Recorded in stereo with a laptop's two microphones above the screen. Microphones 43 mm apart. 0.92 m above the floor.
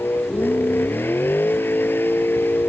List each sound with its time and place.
0.0 s a vehicle: 55° left (ahead or behind)